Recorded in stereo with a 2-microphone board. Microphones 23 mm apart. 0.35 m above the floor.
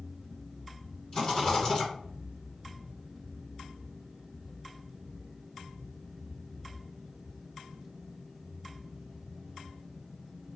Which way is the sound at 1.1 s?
35° left (ahead or behind).